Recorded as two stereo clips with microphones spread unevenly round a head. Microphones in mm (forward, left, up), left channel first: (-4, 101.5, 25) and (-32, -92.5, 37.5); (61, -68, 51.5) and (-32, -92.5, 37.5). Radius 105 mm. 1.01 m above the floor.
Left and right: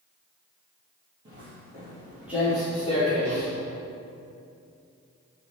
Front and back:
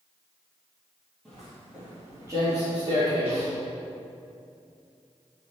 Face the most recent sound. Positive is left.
turn(degrees=165)